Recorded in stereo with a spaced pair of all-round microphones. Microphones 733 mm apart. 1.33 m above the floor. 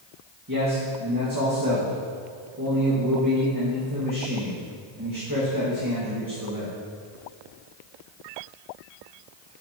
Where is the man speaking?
25° right (ahead or behind), 1.7 m.